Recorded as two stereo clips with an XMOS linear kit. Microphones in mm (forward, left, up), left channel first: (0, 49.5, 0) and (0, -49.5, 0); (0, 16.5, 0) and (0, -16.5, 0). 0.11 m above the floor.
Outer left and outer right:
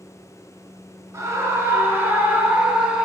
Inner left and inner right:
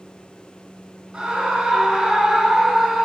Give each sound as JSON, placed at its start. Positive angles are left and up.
{"t": 1.1, "sound": "a scream", "side_deg": -30, "distance_m": 1.3}